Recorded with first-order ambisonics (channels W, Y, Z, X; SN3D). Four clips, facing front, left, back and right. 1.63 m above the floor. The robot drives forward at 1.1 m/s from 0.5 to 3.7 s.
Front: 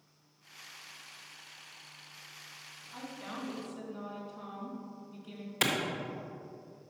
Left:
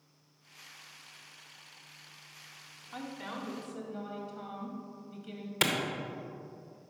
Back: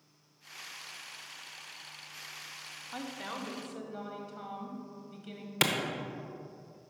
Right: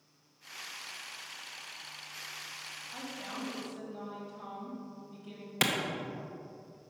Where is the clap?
165° right, 0.7 m.